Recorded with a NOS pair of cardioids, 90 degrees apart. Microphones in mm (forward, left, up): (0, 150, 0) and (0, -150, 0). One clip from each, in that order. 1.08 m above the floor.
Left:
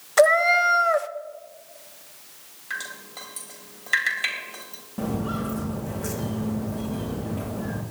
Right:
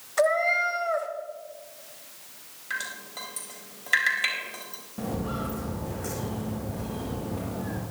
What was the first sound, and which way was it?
A cat meowing, 45° left.